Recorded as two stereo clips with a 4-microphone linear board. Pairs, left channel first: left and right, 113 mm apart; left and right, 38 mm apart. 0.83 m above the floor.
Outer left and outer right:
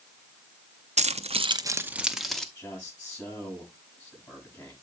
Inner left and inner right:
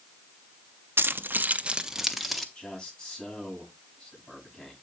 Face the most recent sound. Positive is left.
turn(degrees=30)  # may be behind; listen again after turning